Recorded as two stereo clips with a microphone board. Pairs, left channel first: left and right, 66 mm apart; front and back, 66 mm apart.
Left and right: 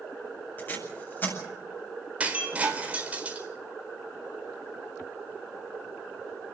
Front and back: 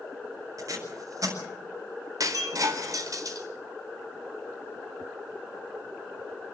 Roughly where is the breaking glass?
Behind right.